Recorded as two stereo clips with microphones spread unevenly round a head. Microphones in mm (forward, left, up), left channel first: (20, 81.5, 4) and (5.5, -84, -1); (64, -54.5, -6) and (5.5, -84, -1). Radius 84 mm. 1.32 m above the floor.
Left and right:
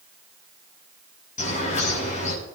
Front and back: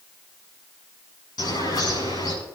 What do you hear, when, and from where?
1.4 s a bird: 40° left, 7 m